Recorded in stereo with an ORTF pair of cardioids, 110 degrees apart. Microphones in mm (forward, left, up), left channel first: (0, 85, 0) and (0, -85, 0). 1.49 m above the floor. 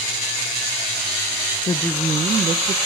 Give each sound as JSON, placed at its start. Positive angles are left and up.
{"t": 1.7, "sound": "a woman speaking", "azimuth_deg": 30, "distance_m": 0.6}